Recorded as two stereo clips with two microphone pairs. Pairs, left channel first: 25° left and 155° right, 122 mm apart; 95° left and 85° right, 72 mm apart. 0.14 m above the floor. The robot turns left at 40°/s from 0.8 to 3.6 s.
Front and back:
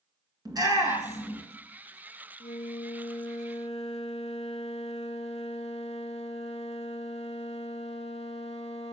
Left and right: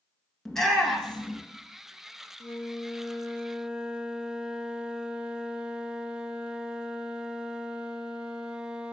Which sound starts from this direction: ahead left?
A flute, at 2.4 s.